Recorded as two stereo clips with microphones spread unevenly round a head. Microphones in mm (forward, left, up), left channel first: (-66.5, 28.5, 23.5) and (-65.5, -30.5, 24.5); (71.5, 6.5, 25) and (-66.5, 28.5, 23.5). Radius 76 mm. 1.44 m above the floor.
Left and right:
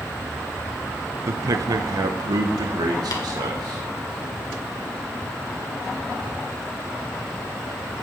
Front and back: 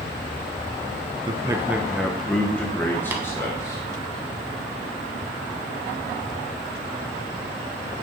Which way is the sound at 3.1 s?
95° left.